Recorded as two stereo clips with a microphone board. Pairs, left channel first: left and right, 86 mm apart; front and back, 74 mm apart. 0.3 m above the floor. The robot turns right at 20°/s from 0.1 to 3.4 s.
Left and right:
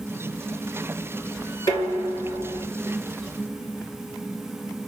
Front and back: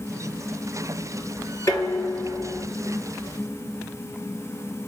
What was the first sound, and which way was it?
Dishes clattering, 50° left.